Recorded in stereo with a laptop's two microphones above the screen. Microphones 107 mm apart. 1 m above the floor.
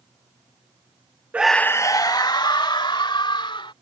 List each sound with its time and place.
1.3 s a scream: 15° right (ahead or behind); by 3.7 s 50° left (ahead or behind)